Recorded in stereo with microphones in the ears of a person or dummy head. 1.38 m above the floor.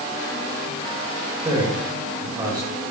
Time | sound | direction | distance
1.4 | a man speaking | 25° right (ahead or behind) | 7.5 m